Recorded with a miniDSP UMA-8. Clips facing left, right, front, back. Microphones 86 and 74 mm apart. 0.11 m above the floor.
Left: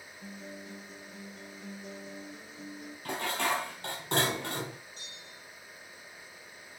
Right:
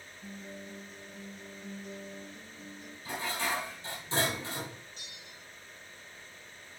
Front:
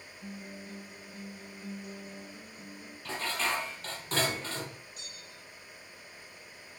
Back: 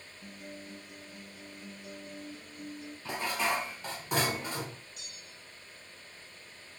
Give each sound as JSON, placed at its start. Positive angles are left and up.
{"t": 0.2, "sound": "a guitar", "azimuth_deg": 70, "distance_m": 4.5}
{"t": 3.0, "sound": "dishes clattering", "azimuth_deg": 105, "distance_m": 2.0}
{"t": 5.0, "sound": "a bell", "azimuth_deg": 40, "distance_m": 2.5}